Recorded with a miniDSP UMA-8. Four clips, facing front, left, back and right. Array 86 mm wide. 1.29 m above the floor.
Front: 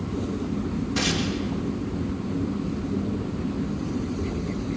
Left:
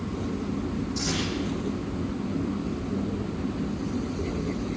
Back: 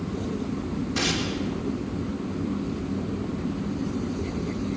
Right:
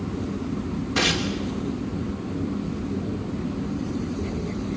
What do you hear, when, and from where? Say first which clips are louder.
0.9 s tearing paper: right 5 dB, front 1 dB; 90° right, 5 m